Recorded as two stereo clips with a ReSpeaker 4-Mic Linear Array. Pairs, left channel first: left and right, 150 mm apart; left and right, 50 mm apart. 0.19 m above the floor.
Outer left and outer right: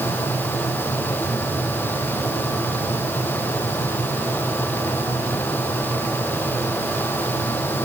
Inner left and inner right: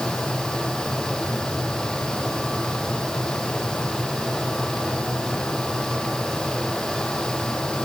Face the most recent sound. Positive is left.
No sound to turn to.